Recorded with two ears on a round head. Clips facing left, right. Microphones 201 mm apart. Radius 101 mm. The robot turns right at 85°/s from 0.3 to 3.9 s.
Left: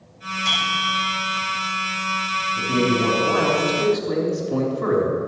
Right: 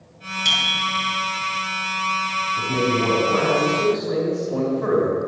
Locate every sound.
0.5 s a bicycle bell: 135° right, 6 m; by 1.1 s 75° right, 6 m
2.6 s a man speaking: 15° left, 3.5 m; by 5.2 s 130° left, 3.5 m